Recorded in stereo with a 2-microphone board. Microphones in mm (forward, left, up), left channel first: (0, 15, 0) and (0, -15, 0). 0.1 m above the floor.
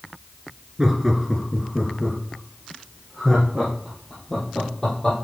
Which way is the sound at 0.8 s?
15° right (ahead or behind).